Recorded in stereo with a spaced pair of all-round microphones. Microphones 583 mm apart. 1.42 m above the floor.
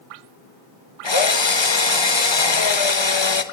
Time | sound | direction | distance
1.0 | a drill | 50° left (ahead or behind) | 0.9 m